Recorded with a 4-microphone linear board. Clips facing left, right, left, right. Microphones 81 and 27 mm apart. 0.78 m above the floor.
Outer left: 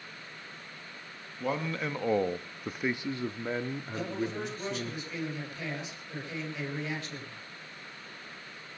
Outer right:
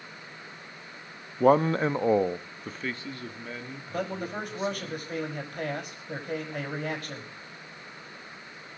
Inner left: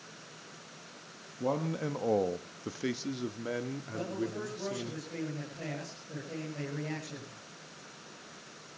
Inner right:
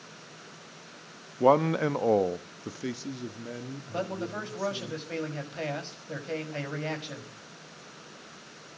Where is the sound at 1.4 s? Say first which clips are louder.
Outer right 12 dB, inner right 11 dB; 55° right (ahead or behind), 0.7 m; by 4.9 s 45° left (ahead or behind), 2 m.